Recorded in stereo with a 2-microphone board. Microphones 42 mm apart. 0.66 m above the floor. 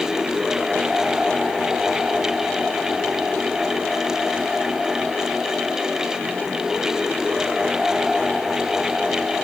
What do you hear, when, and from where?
Only background noise.